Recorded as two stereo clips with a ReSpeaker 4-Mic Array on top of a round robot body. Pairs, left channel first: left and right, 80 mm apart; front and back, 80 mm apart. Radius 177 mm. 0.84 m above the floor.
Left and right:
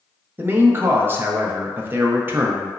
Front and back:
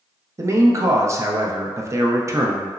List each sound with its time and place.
0.4 s a man speaking: 145° right, 0.6 m